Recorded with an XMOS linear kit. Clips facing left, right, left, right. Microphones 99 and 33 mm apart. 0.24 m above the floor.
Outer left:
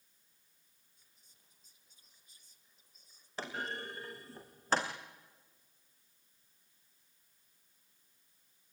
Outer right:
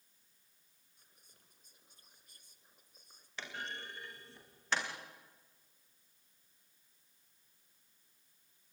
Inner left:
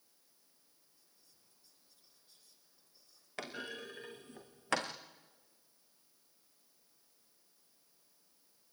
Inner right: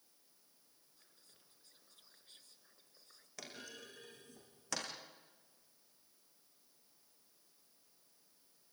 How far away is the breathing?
No breathing in this recording.